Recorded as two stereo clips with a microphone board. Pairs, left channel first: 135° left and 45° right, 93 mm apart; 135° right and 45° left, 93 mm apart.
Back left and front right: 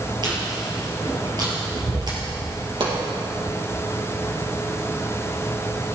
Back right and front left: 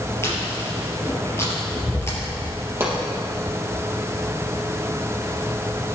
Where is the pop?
20° right, 4.5 m.